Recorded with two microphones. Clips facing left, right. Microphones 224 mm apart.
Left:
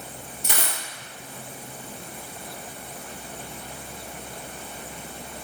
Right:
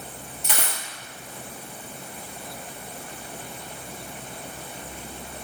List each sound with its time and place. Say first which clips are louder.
0.4 s a dropped coin: even; 45° left (ahead or behind), 1.2 m